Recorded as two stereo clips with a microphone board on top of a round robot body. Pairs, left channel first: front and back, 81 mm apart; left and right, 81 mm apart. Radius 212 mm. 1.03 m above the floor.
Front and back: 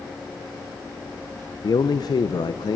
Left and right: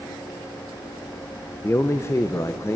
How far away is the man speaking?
About 0.8 m.